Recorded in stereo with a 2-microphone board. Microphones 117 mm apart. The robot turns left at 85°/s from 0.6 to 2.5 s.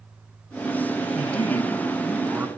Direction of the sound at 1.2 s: 90° left.